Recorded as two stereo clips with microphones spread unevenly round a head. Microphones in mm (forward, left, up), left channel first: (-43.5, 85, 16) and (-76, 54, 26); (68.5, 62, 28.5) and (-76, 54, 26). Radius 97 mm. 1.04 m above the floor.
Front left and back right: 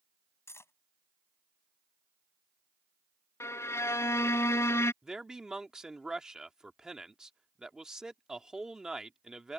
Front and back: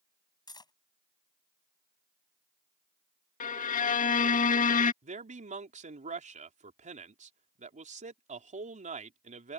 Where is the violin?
30° left.